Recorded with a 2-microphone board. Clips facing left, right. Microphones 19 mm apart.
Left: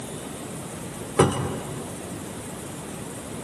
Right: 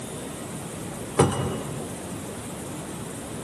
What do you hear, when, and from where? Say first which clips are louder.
1.2 s a cupboard door: left 1 dB; centre (ahead or behind), 2 m